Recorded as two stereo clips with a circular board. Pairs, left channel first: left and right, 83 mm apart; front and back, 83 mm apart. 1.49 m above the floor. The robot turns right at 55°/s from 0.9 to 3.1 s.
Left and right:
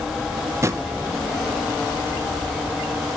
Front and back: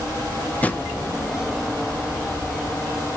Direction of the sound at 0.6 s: 60° right.